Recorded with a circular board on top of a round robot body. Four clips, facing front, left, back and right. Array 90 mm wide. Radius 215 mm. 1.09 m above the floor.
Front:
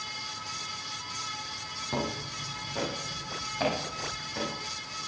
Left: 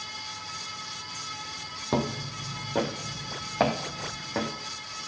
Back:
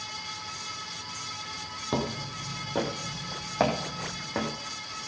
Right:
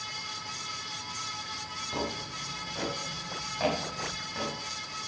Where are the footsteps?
115° left, 2 m; by 4.5 s 140° left, 3 m.